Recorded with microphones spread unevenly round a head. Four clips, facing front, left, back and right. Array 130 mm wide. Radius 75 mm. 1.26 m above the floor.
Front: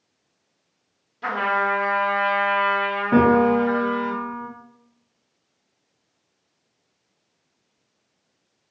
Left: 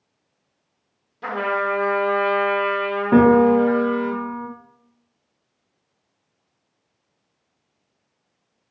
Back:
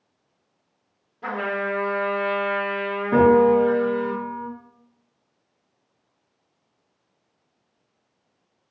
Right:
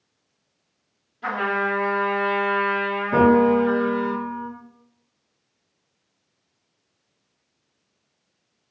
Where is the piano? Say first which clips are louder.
Left 3 dB, back 2 dB; 70° left, 0.7 m.